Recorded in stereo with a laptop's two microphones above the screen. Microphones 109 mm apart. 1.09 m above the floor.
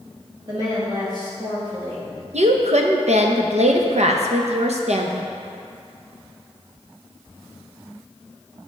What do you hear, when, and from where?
0.5 s a woman speaking: 40° right (ahead or behind), 1.7 m
2.3 s a woman speaking: 80° right, 0.7 m